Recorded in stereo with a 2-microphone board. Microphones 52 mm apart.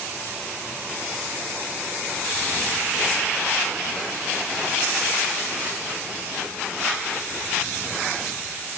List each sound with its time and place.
Only background noise.